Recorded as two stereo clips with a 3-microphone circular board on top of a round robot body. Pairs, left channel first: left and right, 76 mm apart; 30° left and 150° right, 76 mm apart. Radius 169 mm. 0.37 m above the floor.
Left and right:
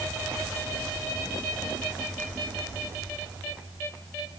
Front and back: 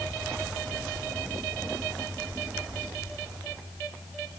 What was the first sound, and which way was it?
Only background noise.